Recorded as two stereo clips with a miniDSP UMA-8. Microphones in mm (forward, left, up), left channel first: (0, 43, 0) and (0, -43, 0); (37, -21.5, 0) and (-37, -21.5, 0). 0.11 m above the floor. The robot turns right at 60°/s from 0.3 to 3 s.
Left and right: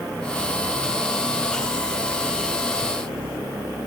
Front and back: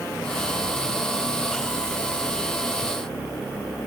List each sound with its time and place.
Only background noise.